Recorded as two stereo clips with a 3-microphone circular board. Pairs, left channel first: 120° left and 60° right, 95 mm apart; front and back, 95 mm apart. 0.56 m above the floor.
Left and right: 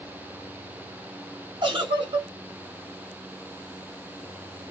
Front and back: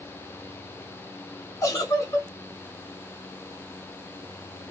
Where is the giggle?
50° right, 1.3 m.